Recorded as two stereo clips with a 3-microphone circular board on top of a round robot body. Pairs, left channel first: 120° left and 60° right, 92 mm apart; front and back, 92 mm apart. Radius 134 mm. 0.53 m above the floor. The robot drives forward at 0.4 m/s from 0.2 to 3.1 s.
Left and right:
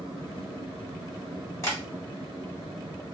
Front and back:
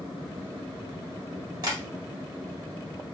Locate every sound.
1.6 s tapping: 165° left, 1.8 m